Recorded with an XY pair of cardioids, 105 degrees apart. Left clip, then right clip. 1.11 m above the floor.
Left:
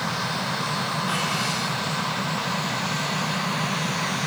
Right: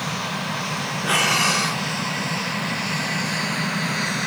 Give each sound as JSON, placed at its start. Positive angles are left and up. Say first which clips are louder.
{"t": 1.0, "sound": "breathing", "louder": "right 11 dB", "azimuth_deg": -70}